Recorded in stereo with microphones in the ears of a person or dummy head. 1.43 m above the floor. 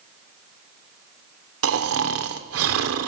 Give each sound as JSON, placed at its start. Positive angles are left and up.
{"t": 1.6, "sound": "snoring", "side_deg": -70, "distance_m": 0.9}